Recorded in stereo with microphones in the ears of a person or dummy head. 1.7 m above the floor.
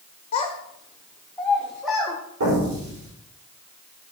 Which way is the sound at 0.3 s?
35° left (ahead or behind).